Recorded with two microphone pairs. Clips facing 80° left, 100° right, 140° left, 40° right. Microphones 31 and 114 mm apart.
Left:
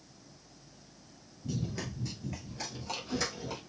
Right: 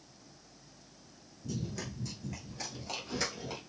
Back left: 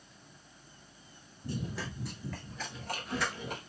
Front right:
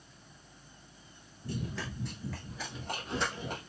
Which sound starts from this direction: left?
Running footsteps, at 1.4 s.